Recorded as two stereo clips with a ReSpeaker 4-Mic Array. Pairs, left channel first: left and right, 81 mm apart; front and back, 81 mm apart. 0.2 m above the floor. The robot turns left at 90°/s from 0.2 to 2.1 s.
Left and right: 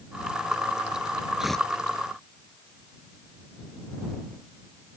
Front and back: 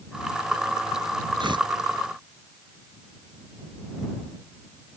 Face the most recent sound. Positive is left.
turn(degrees=125)